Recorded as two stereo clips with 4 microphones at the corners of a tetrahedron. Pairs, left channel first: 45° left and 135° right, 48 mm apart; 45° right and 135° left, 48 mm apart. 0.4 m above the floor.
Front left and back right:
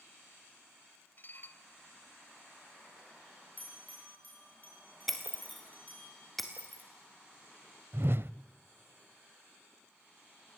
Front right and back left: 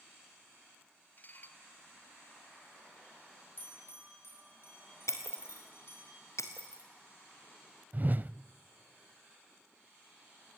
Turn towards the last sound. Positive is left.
turn(degrees=-175)